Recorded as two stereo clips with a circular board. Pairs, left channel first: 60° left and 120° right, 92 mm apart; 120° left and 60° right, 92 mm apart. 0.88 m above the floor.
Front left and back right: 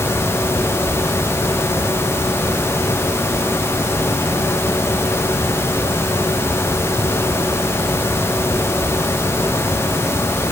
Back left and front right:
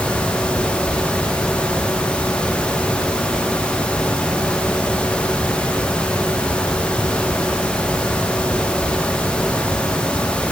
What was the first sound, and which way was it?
Only background noise.